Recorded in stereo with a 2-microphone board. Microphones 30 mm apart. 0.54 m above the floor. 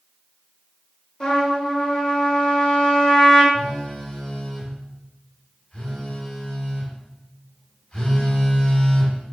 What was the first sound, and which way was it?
A trumpet, 35° left (ahead or behind).